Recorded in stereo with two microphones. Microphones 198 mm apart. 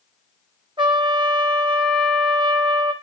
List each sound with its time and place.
0.8 s a trumpet: 25° right (ahead or behind), 1.4 m